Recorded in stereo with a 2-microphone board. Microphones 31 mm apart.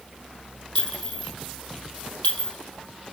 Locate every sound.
0.8 s a clink: 45° left (ahead or behind), 2.0 m